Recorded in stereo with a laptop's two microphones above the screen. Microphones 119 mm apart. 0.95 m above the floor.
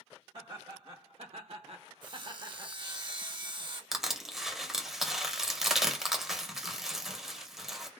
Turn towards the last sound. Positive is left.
turn(degrees=-5)  # may be behind; listen again after turning